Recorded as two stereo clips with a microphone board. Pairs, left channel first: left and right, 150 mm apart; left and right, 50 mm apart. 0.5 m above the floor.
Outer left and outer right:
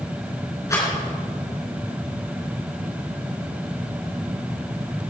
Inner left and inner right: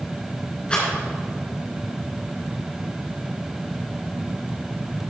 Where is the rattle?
20° left (ahead or behind), 4 m.